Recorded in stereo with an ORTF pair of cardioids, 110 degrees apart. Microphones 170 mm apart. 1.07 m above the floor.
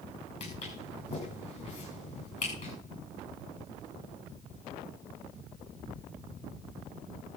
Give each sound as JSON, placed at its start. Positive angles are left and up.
{"t": 0.4, "sound": "footsteps", "azimuth_deg": 45, "distance_m": 8.0}